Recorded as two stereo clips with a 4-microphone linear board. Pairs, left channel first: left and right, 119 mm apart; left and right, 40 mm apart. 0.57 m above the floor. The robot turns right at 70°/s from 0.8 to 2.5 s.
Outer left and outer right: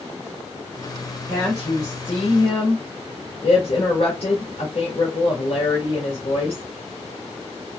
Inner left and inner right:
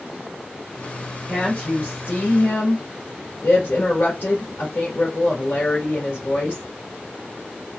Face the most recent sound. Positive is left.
turn(degrees=95)